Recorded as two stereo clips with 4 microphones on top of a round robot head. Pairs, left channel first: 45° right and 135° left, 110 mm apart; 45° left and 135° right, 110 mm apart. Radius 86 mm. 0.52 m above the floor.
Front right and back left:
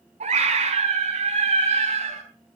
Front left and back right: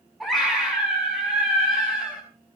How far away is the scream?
About 6 m.